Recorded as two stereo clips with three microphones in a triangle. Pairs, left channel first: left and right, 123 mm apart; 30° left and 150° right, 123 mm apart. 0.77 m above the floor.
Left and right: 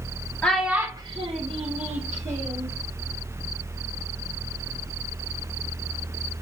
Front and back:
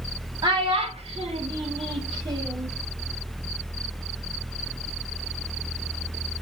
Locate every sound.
0.4 s a child speaking: 165° left, 0.5 m; by 2.7 s 95° right, 1.5 m